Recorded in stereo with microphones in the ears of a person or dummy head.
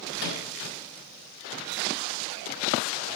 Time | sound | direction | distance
0.2 | a microwave | 85° left | 3.5 m